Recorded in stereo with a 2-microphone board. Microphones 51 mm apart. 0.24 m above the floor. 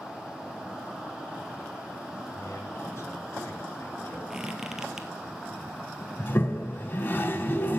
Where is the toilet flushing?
45° left (ahead or behind), 0.8 m.